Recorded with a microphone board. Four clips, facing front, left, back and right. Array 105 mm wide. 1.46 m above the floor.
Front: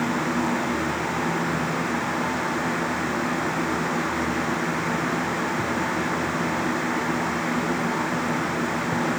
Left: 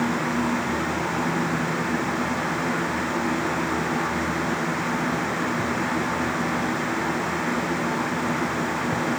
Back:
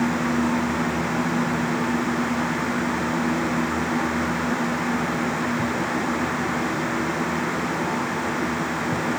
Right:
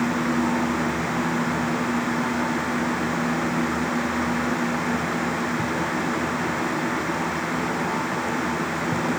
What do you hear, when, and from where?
Only background noise.